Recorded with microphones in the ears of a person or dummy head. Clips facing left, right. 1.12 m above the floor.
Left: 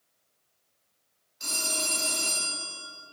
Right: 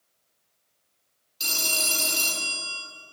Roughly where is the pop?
I don't hear a pop.